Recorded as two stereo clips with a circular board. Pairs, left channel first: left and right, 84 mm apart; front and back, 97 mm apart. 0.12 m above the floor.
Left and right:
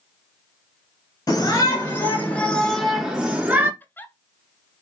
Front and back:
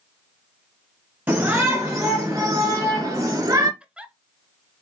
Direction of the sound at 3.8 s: 115° left.